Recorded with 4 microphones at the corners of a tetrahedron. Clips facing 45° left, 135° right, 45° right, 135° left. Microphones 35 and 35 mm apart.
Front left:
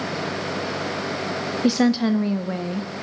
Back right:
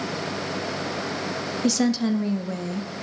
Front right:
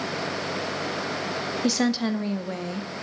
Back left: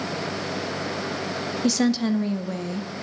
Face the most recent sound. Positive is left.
turn(degrees=30)